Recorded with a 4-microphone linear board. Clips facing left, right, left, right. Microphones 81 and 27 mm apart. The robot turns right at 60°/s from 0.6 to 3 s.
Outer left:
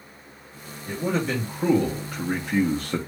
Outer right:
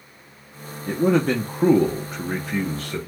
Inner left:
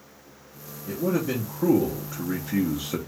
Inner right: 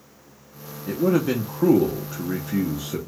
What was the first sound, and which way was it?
A man speaking, 100° right.